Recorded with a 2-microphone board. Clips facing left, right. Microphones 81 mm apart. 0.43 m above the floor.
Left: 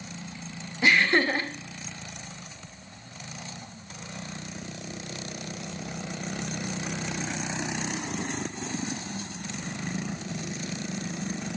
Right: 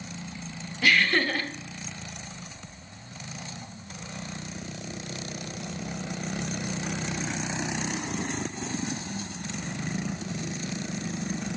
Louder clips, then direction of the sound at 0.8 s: Left 2 dB; 20° left (ahead or behind).